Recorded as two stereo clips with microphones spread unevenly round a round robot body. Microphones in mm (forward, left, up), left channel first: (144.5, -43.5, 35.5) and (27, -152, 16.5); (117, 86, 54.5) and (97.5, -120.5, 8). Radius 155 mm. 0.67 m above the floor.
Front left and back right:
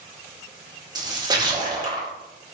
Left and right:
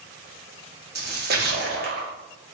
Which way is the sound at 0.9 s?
80° right.